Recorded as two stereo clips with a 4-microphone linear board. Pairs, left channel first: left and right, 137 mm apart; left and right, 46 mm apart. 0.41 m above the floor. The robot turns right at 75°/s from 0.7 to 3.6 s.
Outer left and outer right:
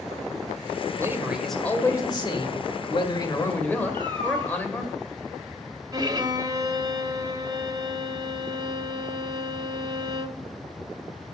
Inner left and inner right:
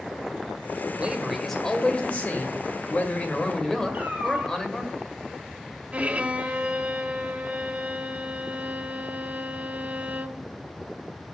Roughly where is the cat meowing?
Right.